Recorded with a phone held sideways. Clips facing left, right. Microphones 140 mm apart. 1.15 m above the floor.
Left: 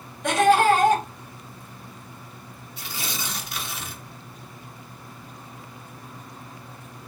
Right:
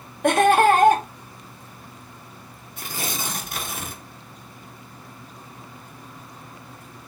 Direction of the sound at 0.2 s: 55° right (ahead or behind).